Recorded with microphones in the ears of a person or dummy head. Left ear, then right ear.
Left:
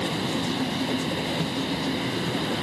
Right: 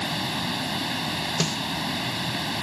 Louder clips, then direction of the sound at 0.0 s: Even; 25° right (ahead or behind).